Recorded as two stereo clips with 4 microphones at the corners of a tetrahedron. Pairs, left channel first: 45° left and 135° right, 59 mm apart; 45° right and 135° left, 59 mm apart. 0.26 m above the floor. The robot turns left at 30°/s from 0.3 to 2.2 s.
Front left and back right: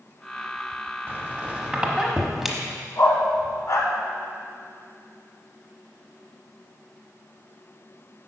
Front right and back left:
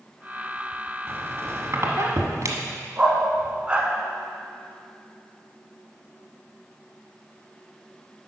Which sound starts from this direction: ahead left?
A dog barking, at 3.0 s.